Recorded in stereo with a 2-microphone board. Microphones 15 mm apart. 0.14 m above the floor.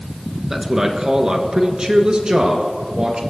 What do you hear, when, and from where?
0.5 s a man speaking: 25° right (ahead or behind), 1.8 m; by 3.2 s 60° right (ahead or behind), 2.5 m